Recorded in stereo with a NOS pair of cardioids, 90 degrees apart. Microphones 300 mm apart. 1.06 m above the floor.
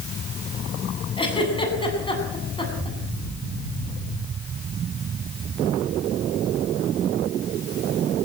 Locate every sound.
1.2 s a giggle: 15° left, 8.5 m